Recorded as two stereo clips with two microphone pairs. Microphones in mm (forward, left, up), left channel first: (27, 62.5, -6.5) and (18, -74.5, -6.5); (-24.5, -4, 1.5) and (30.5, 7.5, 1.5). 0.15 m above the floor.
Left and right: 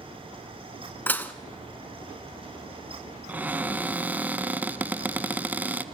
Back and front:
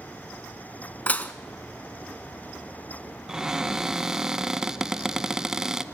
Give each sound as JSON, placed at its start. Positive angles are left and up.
{"t": 1.1, "sound": "dishes clattering", "azimuth_deg": 155, "distance_m": 1.1}
{"t": 3.3, "sound": "a cupboard door", "azimuth_deg": -45, "distance_m": 0.7}